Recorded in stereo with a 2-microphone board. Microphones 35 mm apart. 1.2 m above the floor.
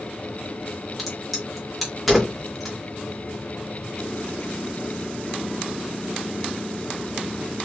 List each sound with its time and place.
1.0 s a crack: 5° right (ahead or behind), 1.6 m